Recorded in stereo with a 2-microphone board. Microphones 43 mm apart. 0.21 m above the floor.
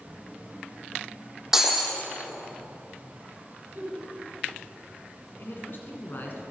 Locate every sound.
1.5 s breaking glass: 10° right (ahead or behind), 2 m
3.8 s a giggle: 55° right (ahead or behind), 3.5 m
5.4 s a man speaking: 50° left (ahead or behind), 1.9 m